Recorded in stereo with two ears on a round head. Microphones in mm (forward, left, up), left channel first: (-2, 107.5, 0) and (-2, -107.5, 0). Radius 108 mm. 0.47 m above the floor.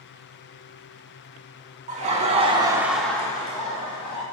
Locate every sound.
1.9 s laughter: 35° right (ahead or behind), 1.3 m; by 4.2 s 30° left (ahead or behind), 1.7 m